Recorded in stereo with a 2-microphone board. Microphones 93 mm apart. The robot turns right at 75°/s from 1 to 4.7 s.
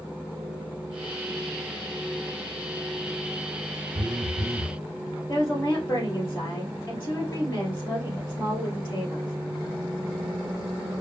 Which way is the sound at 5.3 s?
30° left (ahead or behind).